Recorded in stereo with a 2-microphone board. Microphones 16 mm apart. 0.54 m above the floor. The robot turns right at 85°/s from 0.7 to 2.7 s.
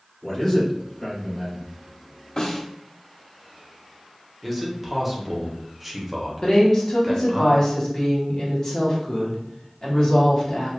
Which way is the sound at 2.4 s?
55° left (ahead or behind).